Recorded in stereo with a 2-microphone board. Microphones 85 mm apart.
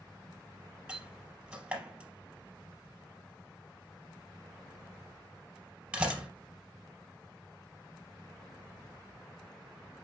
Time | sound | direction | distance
0.9 | a door slam | 15° right (ahead or behind) | 3.5 m